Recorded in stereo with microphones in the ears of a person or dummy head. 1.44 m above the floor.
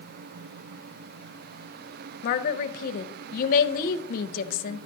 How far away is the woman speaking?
About 0.5 m.